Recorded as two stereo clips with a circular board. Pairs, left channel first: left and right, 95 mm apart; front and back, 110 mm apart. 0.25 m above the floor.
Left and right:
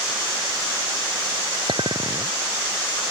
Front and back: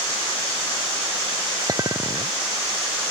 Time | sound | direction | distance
1.7 | a clink | 125° right | ?